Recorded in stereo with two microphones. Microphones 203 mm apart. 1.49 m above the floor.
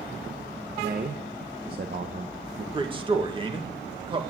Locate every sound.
0.8 s a man speaking: 50° right (ahead or behind), 1.1 m
2.7 s a man speaking: 25° right (ahead or behind), 1.9 m